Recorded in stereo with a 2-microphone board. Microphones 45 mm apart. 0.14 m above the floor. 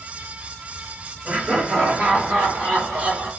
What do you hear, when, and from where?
1.2 s laughter: 40° right (ahead or behind), 2.5 m; by 3.3 s 55° right (ahead or behind), 3.5 m